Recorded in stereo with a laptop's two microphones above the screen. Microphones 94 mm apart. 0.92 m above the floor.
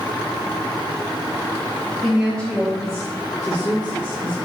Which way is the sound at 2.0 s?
Centre (ahead or behind).